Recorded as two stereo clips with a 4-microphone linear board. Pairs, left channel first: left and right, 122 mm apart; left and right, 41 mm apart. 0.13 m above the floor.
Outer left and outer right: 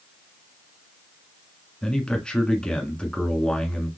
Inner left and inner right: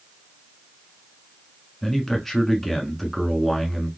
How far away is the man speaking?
About 1.1 m.